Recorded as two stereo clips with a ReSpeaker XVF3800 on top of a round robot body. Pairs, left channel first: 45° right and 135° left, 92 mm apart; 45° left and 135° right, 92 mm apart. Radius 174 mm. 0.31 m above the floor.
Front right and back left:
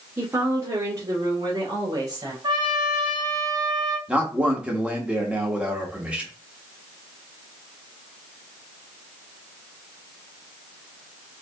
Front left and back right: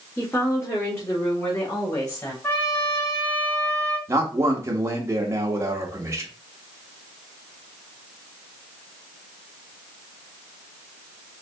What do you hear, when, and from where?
0.2 s a woman speaking: 85° left, 1.4 m; by 2.3 s 95° left, 2 m
2.4 s a trumpet: 105° left, 2 m
4.1 s a man speaking: 155° right, 1.2 m